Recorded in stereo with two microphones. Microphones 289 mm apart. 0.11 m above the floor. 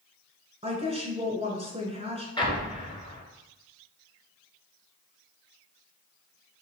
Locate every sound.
0.6 s a woman speaking: 20° right (ahead or behind), 1.1 m
2.4 s an explosion: 15° left (ahead or behind), 1.0 m